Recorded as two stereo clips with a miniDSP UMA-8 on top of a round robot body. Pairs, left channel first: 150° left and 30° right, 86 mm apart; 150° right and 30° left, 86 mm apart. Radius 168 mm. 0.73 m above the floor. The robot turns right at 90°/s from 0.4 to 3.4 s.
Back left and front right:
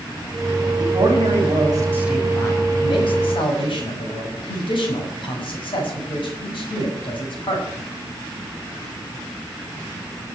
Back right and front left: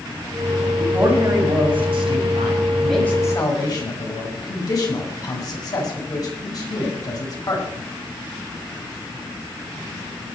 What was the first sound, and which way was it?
A man speaking, 70° right.